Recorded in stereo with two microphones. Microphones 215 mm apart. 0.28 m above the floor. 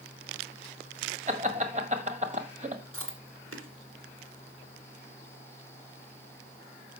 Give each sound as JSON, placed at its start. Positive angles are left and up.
{"t": 1.3, "sound": "laughter", "side_deg": -35, "distance_m": 1.7}
{"t": 2.9, "sound": "chewing", "side_deg": -70, "distance_m": 2.0}